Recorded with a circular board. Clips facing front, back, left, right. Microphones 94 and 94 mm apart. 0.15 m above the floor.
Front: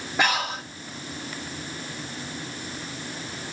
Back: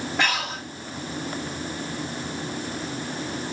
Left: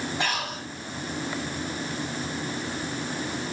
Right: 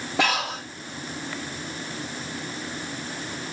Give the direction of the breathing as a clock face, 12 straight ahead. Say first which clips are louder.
Front 3 dB, right 10 dB; 3 o'clock.